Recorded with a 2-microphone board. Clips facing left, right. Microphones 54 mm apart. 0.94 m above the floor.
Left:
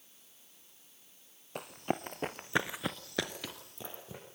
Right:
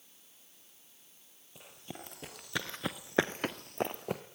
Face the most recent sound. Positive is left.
turn(degrees=-65)  # may be behind; listen again after turning